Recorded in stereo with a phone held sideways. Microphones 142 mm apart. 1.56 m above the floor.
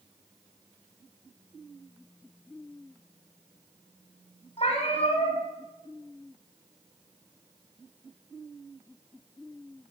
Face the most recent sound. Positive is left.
turn(degrees=50)  # may be behind; listen again after turning